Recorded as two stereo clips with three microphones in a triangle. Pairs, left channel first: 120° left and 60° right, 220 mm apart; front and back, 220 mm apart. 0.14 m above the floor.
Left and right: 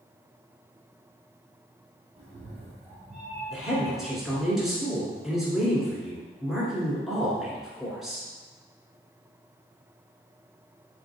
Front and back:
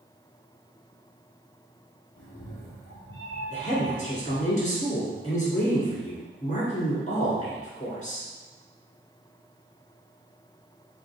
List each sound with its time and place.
2.2 s a cat meowing: straight ahead, 1.3 m; by 4.5 s 85° right, 0.5 m
3.5 s a woman speaking: 30° left, 1.6 m